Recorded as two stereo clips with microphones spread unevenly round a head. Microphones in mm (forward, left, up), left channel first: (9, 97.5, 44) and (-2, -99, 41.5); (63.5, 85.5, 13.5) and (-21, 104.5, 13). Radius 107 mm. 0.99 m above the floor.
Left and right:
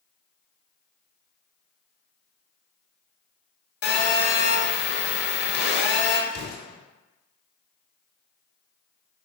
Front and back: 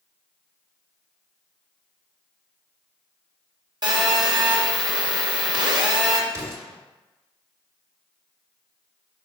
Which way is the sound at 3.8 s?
125° left.